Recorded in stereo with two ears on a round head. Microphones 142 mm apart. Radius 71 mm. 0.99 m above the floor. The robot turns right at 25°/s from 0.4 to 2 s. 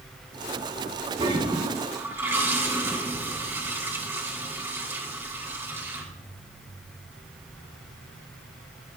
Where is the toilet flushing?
35° right (ahead or behind), 2.5 m; by 6.0 s 15° right (ahead or behind), 2.5 m.